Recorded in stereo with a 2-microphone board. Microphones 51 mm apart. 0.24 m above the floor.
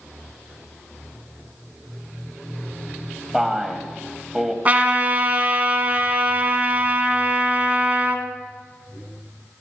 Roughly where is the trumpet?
Right.